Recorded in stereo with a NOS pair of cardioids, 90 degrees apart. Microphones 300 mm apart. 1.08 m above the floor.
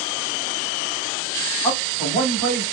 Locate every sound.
1.6 s a man speaking: 5° left, 3.5 m